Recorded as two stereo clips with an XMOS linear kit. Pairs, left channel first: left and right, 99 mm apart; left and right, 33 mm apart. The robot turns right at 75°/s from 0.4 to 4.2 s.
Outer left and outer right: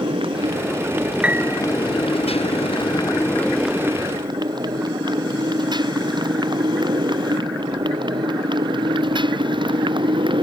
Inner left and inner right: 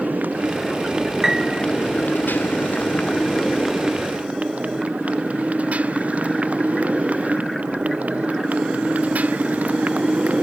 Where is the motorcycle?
60° right (ahead or behind); by 10.4 s 55° right (ahead or behind).